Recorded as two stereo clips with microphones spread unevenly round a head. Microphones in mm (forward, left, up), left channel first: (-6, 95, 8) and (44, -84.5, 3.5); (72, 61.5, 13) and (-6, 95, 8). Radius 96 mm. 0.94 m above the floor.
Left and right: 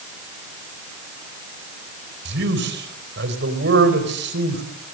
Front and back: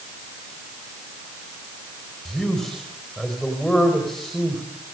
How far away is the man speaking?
About 4.5 m.